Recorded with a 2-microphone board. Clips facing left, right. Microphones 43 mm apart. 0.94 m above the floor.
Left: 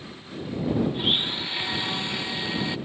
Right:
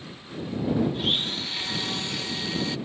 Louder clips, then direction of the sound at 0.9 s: Left 2 dB; 20° left (ahead or behind).